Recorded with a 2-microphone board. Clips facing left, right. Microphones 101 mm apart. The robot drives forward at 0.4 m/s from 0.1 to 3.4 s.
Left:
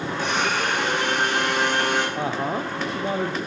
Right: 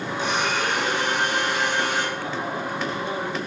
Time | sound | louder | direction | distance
0.2 | a blender | even | 50° left (ahead or behind) | 6 m
2.2 | a woman speaking | left 3 dB | 85° left | 0.7 m